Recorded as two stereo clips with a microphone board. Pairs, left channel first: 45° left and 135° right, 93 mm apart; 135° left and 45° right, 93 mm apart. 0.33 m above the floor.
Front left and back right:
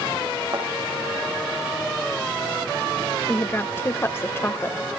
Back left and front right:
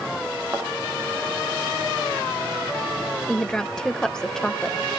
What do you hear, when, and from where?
0.5 s a thud: 100° right, 7.5 m
3.3 s a woman speaking: 65° left, 1.1 m